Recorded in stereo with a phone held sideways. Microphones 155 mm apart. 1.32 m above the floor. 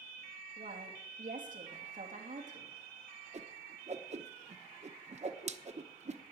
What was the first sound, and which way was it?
A woman speaking, 55° right (ahead or behind).